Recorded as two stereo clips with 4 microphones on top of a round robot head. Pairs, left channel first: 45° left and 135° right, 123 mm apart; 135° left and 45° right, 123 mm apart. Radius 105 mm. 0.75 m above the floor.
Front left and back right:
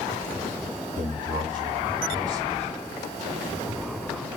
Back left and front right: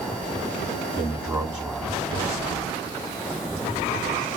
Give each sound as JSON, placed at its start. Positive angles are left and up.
{"t": 1.0, "sound": "a man speaking", "azimuth_deg": -130, "distance_m": 5.5}